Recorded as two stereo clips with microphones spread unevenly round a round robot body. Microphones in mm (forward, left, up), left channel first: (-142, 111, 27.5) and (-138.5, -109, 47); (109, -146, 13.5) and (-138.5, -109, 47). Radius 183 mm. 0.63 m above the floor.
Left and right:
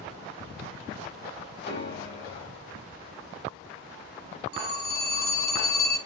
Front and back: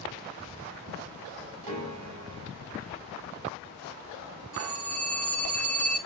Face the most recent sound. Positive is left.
turn(degrees=85)